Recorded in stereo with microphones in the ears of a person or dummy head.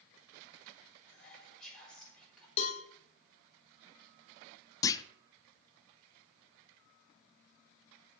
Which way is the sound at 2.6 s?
40° left (ahead or behind).